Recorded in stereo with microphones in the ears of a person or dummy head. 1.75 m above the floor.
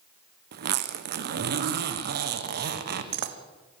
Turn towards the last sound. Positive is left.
turn(degrees=-55)  # may be behind; listen again after turning